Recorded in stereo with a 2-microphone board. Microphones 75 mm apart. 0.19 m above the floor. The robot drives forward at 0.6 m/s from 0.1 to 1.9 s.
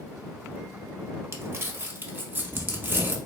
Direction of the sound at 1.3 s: 35° right (ahead or behind).